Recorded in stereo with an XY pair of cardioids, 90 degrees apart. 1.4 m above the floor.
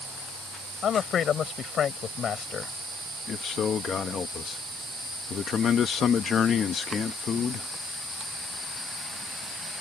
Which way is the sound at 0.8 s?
60° left.